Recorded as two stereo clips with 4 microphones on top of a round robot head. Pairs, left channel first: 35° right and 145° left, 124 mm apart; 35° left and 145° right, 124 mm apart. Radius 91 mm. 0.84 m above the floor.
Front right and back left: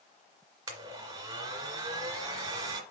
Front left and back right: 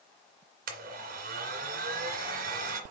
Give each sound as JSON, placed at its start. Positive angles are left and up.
{"t": 0.7, "sound": "a blender", "azimuth_deg": -150, "distance_m": 2.0}